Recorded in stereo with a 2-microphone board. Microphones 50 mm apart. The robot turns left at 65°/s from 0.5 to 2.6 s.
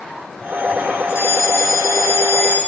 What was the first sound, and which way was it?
A fire alarm, 125° left.